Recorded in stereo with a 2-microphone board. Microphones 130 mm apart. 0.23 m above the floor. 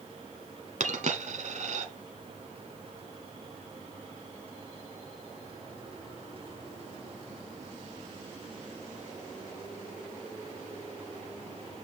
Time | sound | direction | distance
0.8 | a dropped coin | 60° right (ahead or behind) | 1.1 m